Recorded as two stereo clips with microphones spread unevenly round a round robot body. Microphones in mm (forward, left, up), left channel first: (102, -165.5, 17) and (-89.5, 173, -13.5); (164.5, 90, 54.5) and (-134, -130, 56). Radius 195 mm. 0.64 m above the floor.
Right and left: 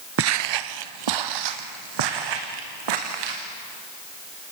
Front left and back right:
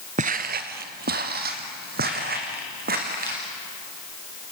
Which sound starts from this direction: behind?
Footsteps, at 0.2 s.